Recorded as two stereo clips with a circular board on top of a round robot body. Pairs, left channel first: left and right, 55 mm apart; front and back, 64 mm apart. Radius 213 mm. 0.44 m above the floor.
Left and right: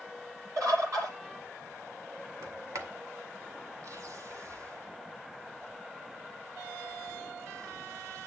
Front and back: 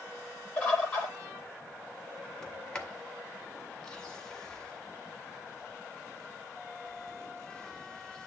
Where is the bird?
70° right, 10 m.